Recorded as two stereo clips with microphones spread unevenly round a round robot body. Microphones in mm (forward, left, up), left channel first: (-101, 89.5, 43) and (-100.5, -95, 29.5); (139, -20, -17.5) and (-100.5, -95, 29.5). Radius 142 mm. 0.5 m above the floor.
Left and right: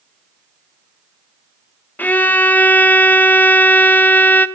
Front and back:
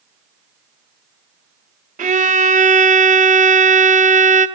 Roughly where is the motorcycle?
No motorcycle in this recording.